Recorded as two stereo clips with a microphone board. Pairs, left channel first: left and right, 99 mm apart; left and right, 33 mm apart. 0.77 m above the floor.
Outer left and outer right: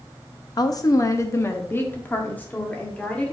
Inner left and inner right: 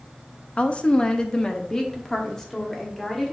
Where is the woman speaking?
40° left (ahead or behind), 0.7 m; by 3.3 s 10° left (ahead or behind), 2 m.